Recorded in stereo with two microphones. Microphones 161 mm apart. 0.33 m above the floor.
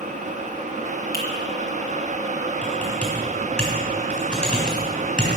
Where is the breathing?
No breathing in this recording.